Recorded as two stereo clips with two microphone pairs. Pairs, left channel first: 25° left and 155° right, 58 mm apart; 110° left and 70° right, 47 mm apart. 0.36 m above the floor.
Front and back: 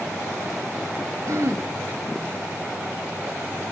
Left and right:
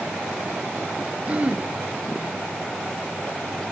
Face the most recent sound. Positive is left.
turn(degrees=-130)